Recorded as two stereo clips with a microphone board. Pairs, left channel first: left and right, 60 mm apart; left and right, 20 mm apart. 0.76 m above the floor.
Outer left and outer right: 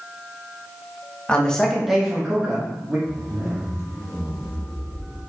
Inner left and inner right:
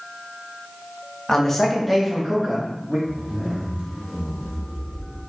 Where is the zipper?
60° right (ahead or behind), 2.5 m.